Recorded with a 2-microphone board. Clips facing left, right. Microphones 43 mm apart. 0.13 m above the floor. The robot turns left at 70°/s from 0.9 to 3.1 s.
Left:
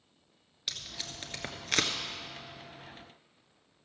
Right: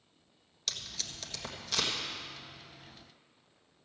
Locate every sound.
0.7 s tape being pulled: 15° left (ahead or behind), 1.2 m; by 1.9 s 55° left (ahead or behind), 1.2 m